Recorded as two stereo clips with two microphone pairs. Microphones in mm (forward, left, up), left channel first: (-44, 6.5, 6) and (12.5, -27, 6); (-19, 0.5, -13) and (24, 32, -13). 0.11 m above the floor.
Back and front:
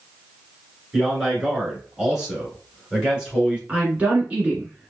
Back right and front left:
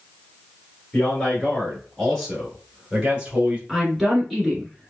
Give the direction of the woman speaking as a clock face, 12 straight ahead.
1 o'clock.